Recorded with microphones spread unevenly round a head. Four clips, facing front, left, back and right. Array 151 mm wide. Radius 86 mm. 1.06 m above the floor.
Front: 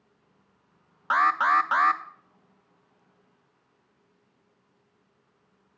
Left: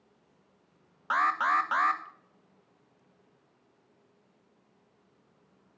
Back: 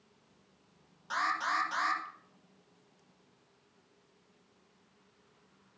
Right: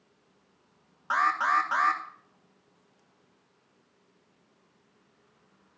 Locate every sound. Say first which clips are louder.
1.1 s an alarm: right 1 dB, front 11 dB; 10° right, 1.0 m